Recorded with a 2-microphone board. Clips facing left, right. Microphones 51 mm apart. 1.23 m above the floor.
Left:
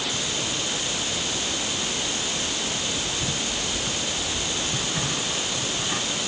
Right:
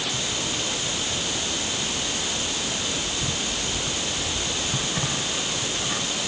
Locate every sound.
Only background noise.